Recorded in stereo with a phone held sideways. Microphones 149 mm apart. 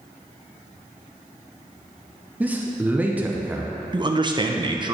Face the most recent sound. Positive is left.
turn(degrees=-30)  # may be behind; listen again after turning